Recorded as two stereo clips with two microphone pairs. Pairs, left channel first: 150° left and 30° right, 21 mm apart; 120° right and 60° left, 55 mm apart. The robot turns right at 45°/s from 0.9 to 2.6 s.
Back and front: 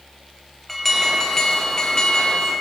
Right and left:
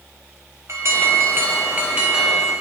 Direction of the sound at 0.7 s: 70° left.